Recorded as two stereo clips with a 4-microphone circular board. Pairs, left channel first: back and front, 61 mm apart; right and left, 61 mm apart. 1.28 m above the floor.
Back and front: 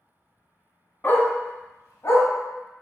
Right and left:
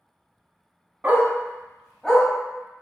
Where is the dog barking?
140° left, 0.8 m; by 2.3 s 165° right, 1.0 m.